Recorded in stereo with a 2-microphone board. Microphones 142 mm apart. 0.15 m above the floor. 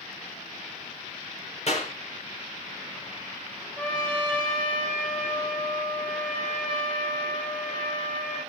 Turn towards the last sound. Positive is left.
turn(degrees=5)  # may be behind; listen again after turning